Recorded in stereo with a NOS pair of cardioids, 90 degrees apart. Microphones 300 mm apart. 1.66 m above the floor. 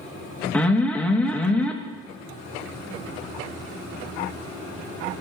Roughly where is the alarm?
Ahead.